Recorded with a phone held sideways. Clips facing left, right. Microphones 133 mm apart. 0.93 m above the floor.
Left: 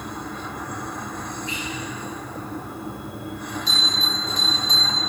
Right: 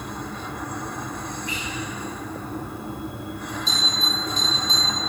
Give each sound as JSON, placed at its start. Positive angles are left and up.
{"t": 1.5, "sound": "whispering", "side_deg": 25, "distance_m": 3.0}
{"t": 3.7, "sound": "a bell", "side_deg": 65, "distance_m": 2.0}